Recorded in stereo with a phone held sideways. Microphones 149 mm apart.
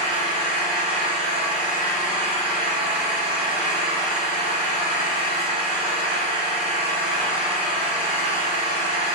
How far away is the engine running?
About 3.5 m.